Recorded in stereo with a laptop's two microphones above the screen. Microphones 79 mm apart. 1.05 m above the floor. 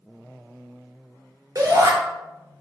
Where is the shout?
45° right (ahead or behind), 0.6 m.